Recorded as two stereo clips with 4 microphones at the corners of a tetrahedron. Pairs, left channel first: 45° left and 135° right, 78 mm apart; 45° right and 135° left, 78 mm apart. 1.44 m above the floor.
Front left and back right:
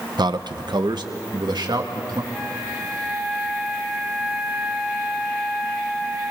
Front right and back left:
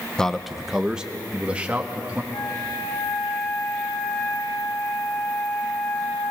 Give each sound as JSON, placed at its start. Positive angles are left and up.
{"t": 0.2, "sound": "a man speaking", "azimuth_deg": -125, "distance_m": 0.7}
{"t": 2.3, "sound": "a flute", "azimuth_deg": -40, "distance_m": 5.5}